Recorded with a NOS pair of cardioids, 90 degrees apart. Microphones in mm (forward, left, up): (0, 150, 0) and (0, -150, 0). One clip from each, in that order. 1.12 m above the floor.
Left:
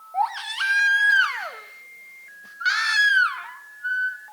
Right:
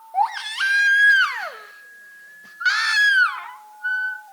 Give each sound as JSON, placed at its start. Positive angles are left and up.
{"t": 0.1, "sound": "a baby crying", "azimuth_deg": -10, "distance_m": 0.6}